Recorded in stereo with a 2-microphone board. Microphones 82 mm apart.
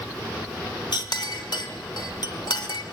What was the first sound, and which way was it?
A clink, 65° left (ahead or behind).